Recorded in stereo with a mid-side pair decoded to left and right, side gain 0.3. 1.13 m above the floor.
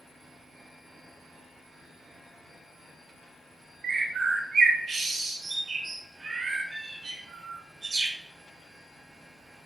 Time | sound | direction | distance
3.8 | a bird | 55° right | 0.9 m